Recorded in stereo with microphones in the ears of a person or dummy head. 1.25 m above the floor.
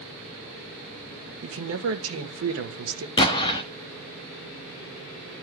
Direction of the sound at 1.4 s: 70° right (ahead or behind).